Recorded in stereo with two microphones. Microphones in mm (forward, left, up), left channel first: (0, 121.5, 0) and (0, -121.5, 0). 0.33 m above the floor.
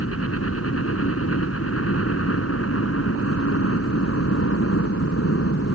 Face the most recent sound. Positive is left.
turn(degrees=60)  # may be behind; listen again after turning